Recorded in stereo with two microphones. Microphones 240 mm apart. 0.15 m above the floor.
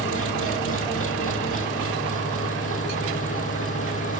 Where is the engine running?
70° left (ahead or behind), 4.5 m.